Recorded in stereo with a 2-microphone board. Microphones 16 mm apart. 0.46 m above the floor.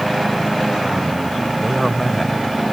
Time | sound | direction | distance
1.6 | a man speaking | 5° left (ahead or behind) | ?